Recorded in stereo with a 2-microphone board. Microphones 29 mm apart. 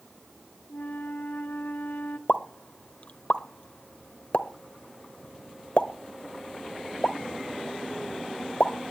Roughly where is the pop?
Left.